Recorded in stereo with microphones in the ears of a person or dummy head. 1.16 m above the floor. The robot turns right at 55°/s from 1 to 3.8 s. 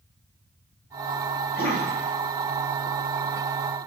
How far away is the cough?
About 1.1 m.